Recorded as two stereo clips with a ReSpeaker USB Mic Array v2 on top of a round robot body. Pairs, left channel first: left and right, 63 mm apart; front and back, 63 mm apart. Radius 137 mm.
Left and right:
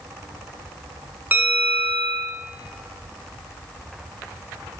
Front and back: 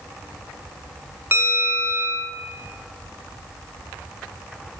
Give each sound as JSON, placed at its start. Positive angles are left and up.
{"t": 1.3, "sound": "a bell", "azimuth_deg": -140, "distance_m": 0.7}